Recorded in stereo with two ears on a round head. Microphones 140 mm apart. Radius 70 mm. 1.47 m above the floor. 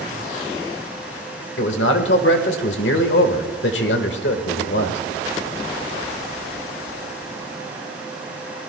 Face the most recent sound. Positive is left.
turn(degrees=80)